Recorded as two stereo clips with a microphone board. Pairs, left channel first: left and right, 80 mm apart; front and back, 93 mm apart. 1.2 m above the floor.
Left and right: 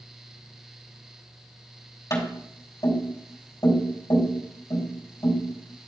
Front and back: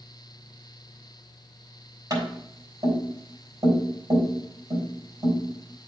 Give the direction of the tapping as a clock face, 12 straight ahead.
8 o'clock.